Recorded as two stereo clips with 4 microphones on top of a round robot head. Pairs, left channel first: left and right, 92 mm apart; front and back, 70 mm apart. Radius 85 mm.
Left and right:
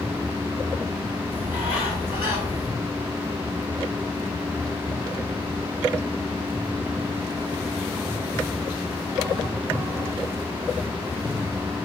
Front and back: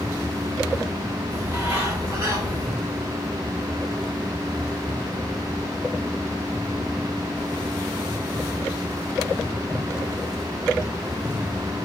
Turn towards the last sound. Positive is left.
turn(degrees=145)